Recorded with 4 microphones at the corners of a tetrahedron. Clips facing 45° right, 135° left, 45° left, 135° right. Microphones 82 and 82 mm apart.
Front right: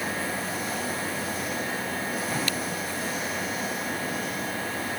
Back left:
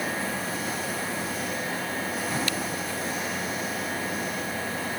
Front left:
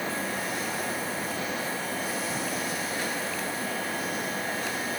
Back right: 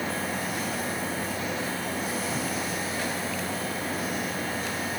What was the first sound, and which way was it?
Only background noise.